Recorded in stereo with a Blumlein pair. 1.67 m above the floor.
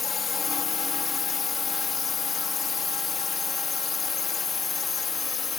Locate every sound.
0.0 s a drone: 20° left